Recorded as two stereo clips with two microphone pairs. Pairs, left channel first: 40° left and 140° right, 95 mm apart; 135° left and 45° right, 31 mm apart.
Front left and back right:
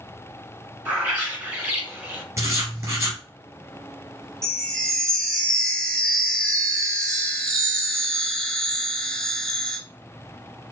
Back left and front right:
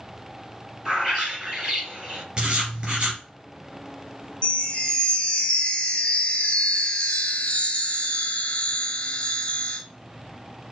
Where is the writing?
95° right, 1.6 m.